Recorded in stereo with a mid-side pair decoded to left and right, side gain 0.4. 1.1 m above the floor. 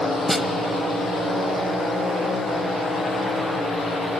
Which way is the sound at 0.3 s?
Straight ahead.